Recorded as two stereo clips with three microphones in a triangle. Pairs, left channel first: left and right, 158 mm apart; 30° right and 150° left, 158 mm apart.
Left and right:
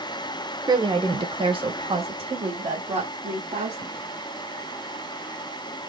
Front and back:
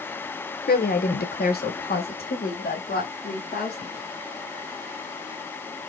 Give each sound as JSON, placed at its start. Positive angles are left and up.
{"t": 0.7, "sound": "a woman speaking", "azimuth_deg": -25, "distance_m": 1.0}